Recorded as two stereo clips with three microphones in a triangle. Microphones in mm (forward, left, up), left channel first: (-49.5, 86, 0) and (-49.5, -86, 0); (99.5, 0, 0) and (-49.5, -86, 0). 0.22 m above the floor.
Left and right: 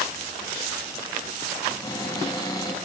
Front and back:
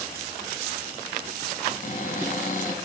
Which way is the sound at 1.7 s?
30° left.